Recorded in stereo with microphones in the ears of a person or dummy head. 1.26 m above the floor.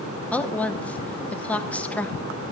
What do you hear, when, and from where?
0.3 s a woman speaking: 5° left (ahead or behind), 0.8 m